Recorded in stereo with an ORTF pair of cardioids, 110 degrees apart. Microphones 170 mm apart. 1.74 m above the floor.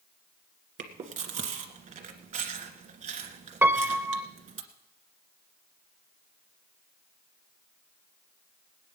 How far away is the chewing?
About 1.9 m.